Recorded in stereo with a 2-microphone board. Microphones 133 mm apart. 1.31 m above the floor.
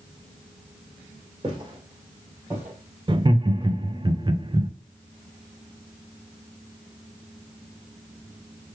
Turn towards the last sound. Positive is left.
turn(degrees=-35)  # may be behind; listen again after turning